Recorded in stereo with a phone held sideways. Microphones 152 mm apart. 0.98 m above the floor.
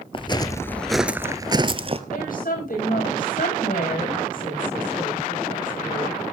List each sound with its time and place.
0.1 s footsteps: 35° left (ahead or behind), 1.1 m; by 2.0 s 40° right (ahead or behind), 1.3 m
2.1 s a woman speaking: 65° left (ahead or behind), 6 m